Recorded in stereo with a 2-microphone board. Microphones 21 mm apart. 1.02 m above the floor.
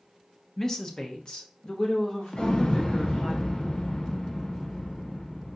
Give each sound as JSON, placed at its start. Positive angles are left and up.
{"t": 0.6, "sound": "a woman speaking", "side_deg": 20, "distance_m": 0.5}
{"t": 2.3, "sound": "an explosion", "side_deg": 50, "distance_m": 0.6}